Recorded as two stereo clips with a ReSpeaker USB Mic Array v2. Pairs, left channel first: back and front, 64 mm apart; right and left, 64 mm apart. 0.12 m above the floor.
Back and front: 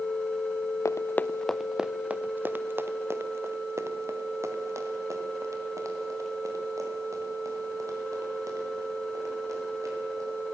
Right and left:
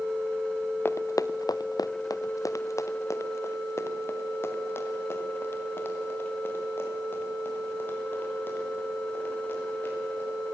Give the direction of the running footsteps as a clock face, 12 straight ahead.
5 o'clock.